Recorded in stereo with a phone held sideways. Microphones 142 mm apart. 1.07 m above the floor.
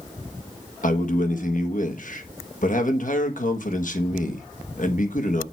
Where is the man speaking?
70° left (ahead or behind), 1.4 m.